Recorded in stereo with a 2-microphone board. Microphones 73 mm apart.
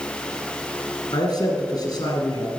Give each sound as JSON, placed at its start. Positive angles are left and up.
{"t": 1.1, "sound": "a man speaking", "side_deg": 65, "distance_m": 2.5}